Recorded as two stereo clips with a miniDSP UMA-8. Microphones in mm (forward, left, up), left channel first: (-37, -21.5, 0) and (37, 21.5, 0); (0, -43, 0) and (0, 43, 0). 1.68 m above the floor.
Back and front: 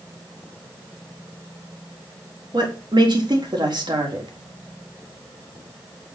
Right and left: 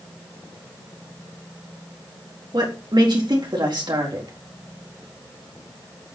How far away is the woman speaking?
About 3.5 m.